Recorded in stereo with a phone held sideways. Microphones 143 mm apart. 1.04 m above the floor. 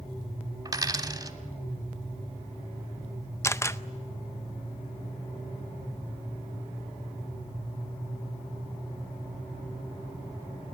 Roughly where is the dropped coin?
Right.